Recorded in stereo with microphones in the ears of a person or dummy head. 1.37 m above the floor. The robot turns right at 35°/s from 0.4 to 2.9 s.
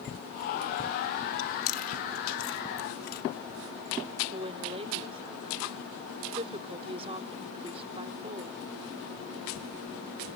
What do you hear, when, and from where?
1.4 s chewing: 75° left (ahead or behind); by 3.2 s 55° left (ahead or behind)
4.3 s a woman speaking: 30° right (ahead or behind)